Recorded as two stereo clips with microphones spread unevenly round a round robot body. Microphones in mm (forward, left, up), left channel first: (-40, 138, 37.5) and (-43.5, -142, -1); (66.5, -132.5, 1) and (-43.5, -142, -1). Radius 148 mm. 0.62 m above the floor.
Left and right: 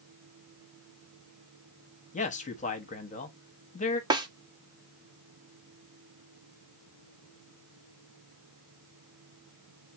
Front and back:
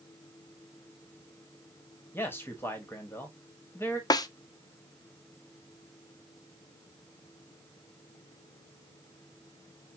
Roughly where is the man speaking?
Ahead left.